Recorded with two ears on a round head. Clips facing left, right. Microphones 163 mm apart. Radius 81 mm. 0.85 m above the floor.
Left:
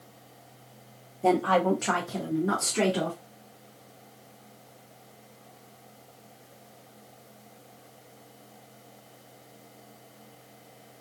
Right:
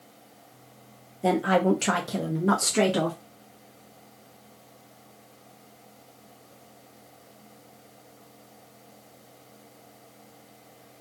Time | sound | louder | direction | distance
1.2 | a woman speaking | right 1 dB | 10° right (ahead or behind) | 0.8 m